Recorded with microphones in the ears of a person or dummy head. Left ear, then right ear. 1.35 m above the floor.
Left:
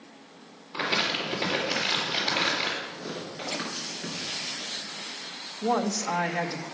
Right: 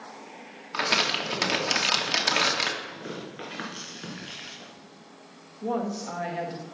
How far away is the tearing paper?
About 4.5 m.